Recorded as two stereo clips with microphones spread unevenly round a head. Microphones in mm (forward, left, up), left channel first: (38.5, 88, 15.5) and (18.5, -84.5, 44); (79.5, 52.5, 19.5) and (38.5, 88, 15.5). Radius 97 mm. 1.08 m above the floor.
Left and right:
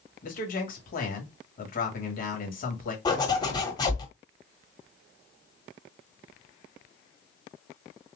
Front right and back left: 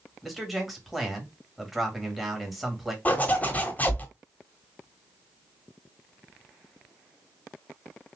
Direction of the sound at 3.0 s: 15° left.